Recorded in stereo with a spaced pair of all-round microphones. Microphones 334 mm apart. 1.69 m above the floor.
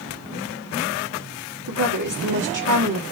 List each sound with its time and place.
1.7 s a woman speaking: 65° right (ahead or behind), 3 m